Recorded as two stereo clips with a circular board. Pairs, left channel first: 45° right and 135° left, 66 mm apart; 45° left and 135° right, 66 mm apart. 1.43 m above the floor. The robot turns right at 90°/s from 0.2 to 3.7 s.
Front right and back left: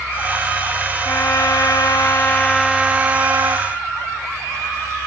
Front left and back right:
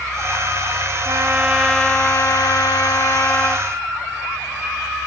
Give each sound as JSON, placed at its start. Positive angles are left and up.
{"t": 1.1, "sound": "a trumpet", "azimuth_deg": -100, "distance_m": 0.9}